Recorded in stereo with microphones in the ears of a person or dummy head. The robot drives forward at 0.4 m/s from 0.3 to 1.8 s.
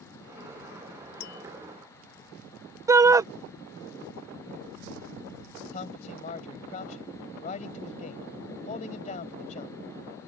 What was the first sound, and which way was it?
Tapping, 60° left (ahead or behind).